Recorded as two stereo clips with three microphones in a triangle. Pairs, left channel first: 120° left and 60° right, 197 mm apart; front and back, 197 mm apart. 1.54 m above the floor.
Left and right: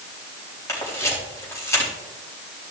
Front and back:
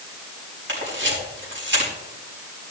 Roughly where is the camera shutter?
Behind.